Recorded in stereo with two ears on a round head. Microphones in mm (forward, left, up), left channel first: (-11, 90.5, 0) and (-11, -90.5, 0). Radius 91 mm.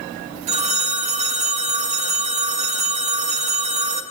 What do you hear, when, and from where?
0.5 s a phone ringing: 35° right (ahead or behind), 1.6 m